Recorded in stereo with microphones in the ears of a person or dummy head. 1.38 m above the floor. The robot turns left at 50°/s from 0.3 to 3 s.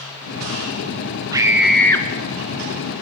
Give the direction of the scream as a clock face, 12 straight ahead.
5 o'clock.